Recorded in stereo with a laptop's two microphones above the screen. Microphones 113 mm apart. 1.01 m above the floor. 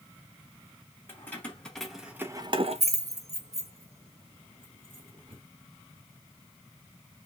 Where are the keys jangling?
20° left (ahead or behind), 1.3 m; by 5.4 s 50° right (ahead or behind), 2.5 m.